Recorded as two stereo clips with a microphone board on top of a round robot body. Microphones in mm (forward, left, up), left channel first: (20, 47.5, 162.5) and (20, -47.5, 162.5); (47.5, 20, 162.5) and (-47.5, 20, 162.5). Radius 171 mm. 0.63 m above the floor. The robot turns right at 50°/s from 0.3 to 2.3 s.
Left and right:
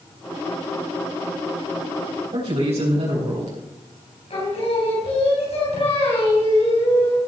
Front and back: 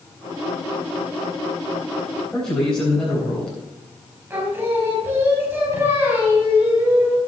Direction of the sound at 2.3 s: 85° right.